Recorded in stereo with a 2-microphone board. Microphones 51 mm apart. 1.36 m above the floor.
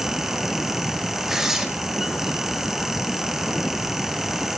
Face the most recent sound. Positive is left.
turn(degrees=-10)  # may be behind; listen again after turning